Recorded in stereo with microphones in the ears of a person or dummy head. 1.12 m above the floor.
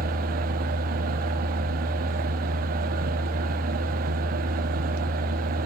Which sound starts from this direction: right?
A fan, at 0.0 s.